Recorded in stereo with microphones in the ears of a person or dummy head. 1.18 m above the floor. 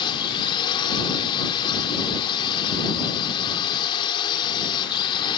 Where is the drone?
20° left (ahead or behind).